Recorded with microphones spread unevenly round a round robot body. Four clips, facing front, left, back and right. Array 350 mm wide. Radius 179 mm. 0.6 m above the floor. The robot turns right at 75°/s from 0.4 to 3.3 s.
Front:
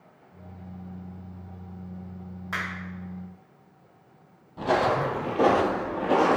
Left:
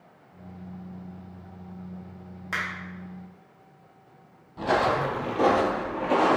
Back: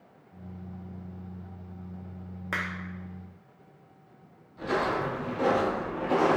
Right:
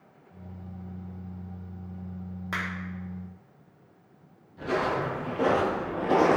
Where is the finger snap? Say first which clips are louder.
Left 2 dB, front 1 dB; 170° right, 1.0 m; by 2.6 s 160° right, 1.0 m.